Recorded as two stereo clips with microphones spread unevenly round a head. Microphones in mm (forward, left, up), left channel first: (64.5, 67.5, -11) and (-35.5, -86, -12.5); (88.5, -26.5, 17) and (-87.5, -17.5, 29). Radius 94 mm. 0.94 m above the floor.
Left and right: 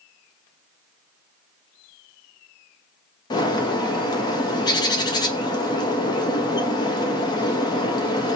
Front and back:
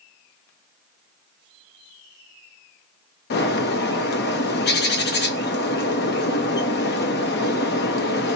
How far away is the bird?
About 0.7 m.